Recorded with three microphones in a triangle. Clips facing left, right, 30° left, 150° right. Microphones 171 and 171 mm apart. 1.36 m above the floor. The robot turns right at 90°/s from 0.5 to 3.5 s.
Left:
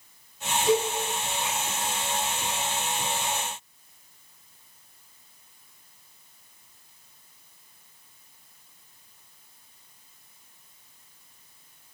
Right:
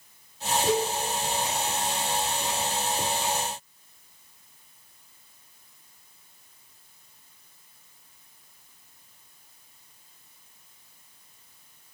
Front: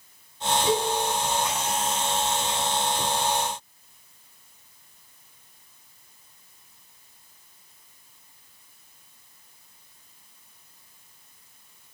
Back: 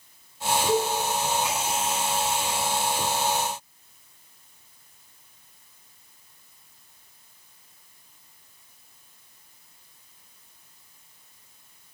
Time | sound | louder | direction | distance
0.7 | a cowbell | left 3 dB, back 1 dB | 100° left | 3 m